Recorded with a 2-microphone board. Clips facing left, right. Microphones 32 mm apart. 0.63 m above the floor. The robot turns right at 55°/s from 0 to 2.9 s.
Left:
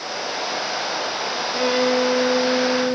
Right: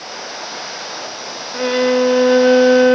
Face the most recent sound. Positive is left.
turn(degrees=-95)